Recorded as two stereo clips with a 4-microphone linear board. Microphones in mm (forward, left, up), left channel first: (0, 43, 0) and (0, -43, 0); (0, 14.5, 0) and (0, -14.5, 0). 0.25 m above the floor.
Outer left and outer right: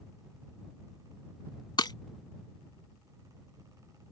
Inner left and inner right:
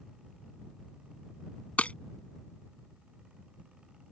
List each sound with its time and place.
1.8 s breaking glass: 55° left (ahead or behind)